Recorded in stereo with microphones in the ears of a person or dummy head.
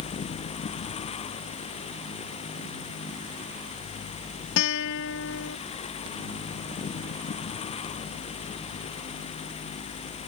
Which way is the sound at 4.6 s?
75° left (ahead or behind).